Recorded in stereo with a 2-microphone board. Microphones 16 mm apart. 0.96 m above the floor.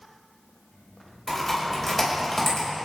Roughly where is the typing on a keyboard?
Centre.